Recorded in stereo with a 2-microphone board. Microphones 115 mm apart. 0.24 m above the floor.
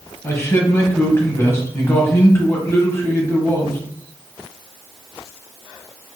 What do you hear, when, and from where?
0.2 s a man speaking: 25° left (ahead or behind), 1.3 m